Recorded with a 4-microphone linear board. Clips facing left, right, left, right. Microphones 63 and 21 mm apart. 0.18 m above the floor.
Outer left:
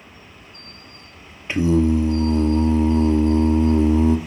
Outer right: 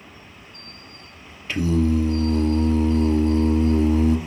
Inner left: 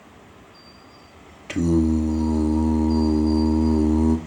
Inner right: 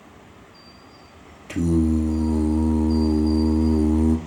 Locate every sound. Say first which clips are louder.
1.5 s singing: outer left 3 dB, inner left 1 dB; 25° left (ahead or behind), 0.8 m